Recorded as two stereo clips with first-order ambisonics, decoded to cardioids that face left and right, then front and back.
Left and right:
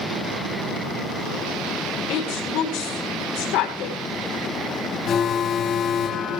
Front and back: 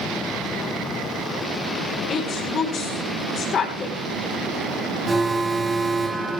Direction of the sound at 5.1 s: 110° left.